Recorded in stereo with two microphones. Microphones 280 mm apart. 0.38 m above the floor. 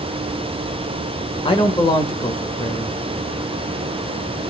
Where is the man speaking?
20° left (ahead or behind), 1.0 m.